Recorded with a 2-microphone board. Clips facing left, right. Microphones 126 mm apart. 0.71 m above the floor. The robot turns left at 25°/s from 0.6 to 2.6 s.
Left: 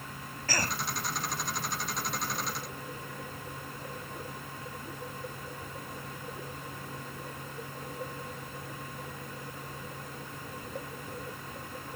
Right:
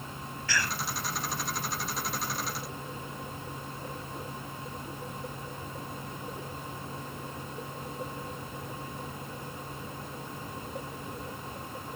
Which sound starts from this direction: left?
A cough, at 0.5 s.